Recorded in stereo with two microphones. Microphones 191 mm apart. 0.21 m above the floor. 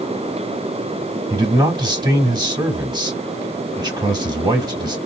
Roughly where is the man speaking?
Right.